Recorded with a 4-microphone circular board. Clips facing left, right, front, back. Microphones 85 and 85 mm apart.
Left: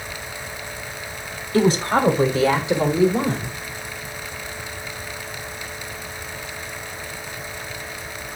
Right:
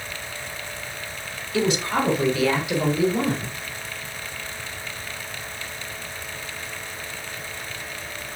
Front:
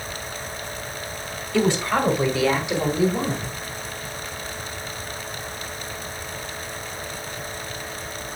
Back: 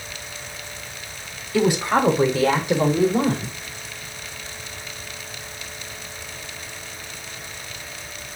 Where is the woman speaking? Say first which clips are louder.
Left 5 dB, back 2 dB; 100° left, 1.5 m; by 3.5 s 155° left, 3 m.